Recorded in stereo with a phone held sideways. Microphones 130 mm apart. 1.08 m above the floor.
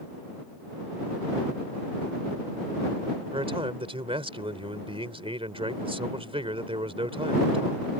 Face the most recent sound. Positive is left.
turn(degrees=-45)  # may be behind; listen again after turning